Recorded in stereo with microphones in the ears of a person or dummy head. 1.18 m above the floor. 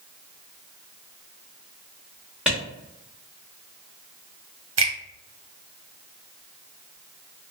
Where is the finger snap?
65° right (ahead or behind), 0.9 m.